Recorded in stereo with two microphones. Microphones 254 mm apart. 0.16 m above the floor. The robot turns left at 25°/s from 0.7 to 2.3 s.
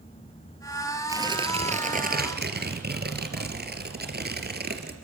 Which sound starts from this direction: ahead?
Tearing paper, at 1.1 s.